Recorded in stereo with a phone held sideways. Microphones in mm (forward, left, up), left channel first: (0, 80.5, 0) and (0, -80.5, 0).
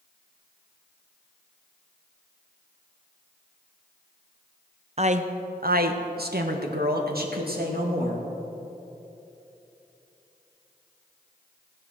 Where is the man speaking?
40° right (ahead or behind), 0.9 m; by 8.2 s 65° right (ahead or behind), 2.5 m.